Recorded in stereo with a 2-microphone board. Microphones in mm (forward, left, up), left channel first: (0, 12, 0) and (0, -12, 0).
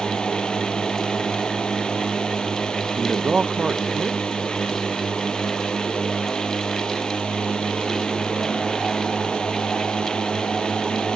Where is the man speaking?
25° right (ahead or behind).